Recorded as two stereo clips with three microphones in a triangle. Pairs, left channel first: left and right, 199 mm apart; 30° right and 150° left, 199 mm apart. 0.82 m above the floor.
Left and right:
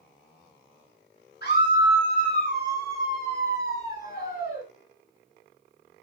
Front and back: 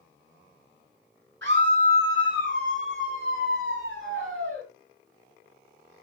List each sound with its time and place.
1.4 s a scream: 125° left, 8 m; by 4.6 s 135° left, 9 m